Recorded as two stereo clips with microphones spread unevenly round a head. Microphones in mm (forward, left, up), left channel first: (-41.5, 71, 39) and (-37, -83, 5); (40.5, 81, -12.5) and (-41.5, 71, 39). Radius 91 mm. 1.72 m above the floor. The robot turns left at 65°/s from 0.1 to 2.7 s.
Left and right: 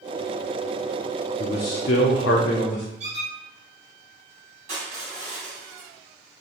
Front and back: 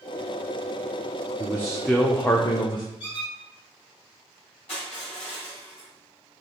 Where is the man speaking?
130° left, 0.6 m; by 2.9 s 45° left, 0.6 m.